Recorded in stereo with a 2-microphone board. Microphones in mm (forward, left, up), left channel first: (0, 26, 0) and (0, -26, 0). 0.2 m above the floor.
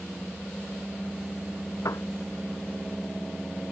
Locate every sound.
1.9 s a piano: 80° left